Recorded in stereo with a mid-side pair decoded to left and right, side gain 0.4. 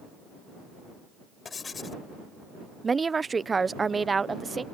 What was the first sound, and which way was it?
Writing, 45° left.